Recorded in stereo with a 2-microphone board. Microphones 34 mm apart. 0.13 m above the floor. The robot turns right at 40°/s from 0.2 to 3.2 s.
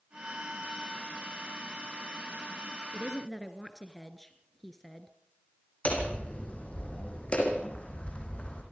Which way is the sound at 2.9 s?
5° right (ahead or behind).